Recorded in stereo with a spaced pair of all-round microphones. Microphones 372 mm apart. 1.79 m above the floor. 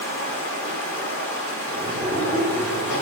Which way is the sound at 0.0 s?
35° left (ahead or behind).